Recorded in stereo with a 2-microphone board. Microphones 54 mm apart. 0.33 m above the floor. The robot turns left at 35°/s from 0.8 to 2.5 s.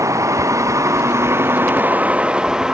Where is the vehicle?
105° right; by 2.8 s 165° right.